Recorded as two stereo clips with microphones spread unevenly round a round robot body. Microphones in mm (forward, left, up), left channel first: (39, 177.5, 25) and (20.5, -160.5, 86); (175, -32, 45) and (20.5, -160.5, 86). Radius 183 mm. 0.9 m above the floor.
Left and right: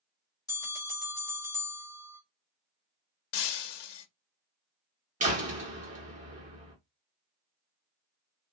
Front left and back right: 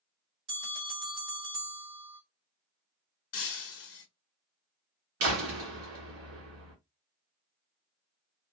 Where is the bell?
165° left, 1.5 m.